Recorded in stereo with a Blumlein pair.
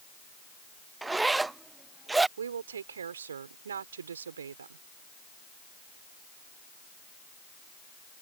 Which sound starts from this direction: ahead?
A zipper, at 1.0 s.